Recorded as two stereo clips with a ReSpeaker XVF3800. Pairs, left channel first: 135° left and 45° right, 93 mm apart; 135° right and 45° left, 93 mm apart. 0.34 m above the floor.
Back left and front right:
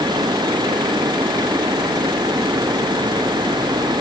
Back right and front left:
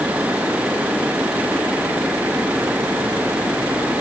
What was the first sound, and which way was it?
Only background noise.